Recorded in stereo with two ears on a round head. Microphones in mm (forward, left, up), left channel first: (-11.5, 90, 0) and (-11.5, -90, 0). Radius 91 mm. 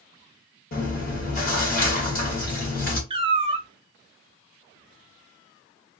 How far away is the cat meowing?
About 0.5 m.